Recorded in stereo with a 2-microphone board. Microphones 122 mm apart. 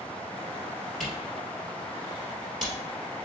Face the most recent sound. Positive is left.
turn(degrees=0)  # may be behind; listen again after turning